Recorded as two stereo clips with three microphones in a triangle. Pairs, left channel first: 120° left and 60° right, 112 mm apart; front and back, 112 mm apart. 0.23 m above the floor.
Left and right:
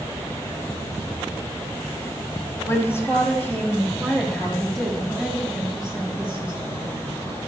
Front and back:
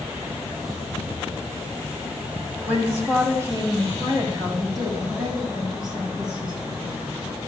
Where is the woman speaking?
135° left, 1.6 m; by 7.1 s 135° right, 3 m.